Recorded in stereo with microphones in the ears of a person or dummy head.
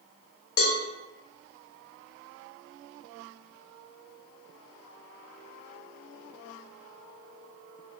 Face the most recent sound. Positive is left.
turn(degrees=75)  # may be behind; listen again after turning